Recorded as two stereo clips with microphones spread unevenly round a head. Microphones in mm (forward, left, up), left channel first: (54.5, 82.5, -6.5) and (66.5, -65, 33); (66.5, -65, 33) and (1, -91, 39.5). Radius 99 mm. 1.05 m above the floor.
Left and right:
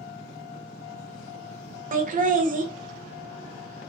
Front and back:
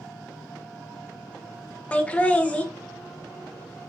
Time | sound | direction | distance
1.9 | laughter | 50° right | 1.1 m